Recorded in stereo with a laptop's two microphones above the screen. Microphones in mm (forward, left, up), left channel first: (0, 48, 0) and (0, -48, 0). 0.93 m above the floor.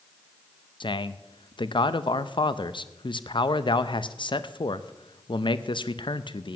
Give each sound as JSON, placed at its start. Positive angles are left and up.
{"t": 0.8, "sound": "a man speaking", "side_deg": 60, "distance_m": 0.5}